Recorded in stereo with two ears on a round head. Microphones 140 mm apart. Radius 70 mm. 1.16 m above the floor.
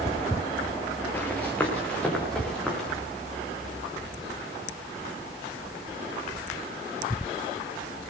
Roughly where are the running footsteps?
Centre.